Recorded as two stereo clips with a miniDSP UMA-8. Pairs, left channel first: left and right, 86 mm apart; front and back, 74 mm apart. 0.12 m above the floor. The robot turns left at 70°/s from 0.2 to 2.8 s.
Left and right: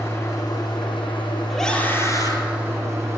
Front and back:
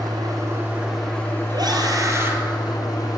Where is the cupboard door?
I don't hear a cupboard door.